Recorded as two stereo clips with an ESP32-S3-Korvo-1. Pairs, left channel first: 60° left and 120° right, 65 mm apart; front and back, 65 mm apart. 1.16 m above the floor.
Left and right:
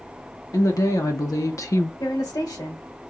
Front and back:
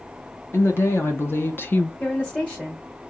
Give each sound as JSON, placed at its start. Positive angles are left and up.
{"t": 0.5, "sound": "a woman speaking", "azimuth_deg": 45, "distance_m": 1.8}
{"t": 2.0, "sound": "a woman speaking", "azimuth_deg": 65, "distance_m": 1.7}